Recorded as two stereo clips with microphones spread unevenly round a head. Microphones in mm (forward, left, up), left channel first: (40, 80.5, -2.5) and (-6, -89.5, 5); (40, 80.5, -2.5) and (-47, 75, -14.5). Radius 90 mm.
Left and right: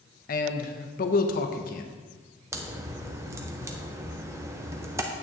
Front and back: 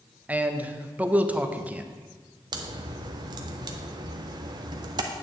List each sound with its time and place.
0.3 s a man speaking: 115° left, 0.7 m
2.5 s a crack: straight behind, 0.7 m